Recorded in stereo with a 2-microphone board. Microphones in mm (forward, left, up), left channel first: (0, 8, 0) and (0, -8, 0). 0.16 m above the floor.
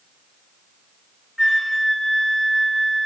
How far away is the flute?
About 1.6 m.